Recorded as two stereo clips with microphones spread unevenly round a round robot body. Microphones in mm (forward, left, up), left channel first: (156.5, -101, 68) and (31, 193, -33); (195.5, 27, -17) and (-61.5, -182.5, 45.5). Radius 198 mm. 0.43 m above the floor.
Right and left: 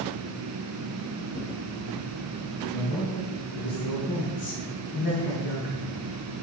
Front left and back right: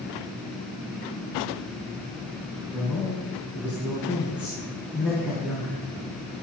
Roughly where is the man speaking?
Ahead right.